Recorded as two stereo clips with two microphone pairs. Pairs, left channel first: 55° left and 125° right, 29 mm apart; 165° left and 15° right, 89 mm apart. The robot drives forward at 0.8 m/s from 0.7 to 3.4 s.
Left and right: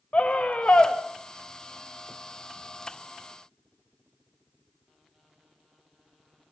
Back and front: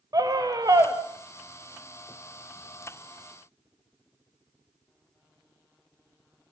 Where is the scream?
25° left, 1.8 m; by 0.9 s 30° left, 1.6 m.